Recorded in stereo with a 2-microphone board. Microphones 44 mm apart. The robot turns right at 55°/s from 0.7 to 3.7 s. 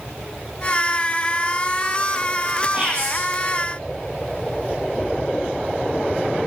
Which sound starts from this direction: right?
Whispering, at 2.7 s.